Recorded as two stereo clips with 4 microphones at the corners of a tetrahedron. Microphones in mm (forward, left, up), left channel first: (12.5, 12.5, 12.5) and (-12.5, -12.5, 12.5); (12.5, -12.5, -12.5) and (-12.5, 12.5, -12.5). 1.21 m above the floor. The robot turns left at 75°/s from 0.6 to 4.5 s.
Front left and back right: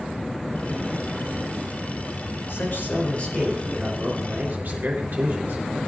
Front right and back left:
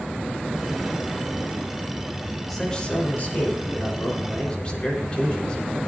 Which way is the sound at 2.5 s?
45° left.